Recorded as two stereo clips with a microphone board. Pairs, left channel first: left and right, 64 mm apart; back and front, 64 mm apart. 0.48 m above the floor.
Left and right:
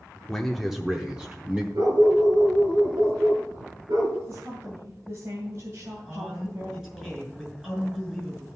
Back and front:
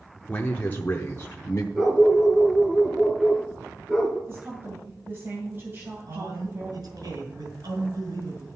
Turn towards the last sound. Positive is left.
turn(degrees=-10)